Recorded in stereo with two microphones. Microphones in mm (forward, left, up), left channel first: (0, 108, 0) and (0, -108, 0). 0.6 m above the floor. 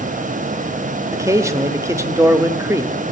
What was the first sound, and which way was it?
A man speaking, 15° right (ahead or behind).